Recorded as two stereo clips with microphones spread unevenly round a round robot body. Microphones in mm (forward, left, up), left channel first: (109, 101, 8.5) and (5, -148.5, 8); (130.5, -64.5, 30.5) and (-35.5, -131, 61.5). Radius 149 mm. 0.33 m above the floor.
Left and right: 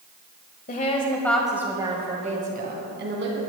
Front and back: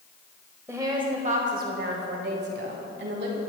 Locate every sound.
0.7 s a woman speaking: 120° left, 1.5 m; by 3.4 s 160° right, 3 m